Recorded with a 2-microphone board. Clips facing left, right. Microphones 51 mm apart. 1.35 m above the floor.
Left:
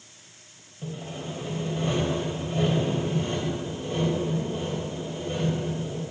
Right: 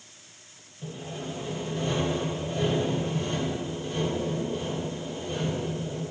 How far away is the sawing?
About 2.5 m.